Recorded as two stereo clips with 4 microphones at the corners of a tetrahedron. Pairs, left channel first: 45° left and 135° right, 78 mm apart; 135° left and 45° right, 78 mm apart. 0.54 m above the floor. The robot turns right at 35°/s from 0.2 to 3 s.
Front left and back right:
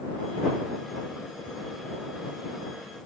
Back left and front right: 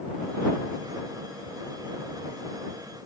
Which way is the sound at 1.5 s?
60° right.